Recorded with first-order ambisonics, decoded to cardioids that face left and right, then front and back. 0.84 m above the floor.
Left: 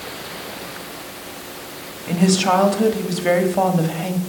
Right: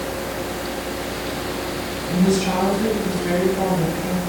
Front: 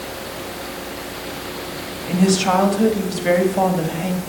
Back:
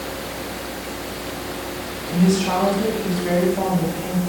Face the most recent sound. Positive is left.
turn(degrees=60)